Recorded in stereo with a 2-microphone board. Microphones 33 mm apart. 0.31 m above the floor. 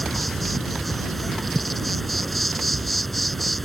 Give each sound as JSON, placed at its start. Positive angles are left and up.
{"t": 0.0, "sound": "an insect", "side_deg": 0}